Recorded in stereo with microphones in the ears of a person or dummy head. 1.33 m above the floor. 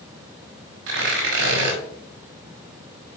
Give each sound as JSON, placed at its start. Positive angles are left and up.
{"t": 0.9, "sound": "tearing paper", "side_deg": -70, "distance_m": 4.5}